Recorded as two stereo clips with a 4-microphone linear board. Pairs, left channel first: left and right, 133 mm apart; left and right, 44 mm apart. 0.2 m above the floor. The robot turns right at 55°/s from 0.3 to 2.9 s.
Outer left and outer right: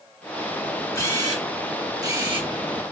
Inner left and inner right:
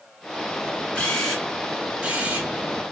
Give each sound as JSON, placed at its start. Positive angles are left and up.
{"t": 0.9, "sound": "a camera shutter", "azimuth_deg": 155, "distance_m": 2.5}